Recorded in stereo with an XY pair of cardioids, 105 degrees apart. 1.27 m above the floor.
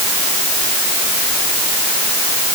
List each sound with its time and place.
Only background noise.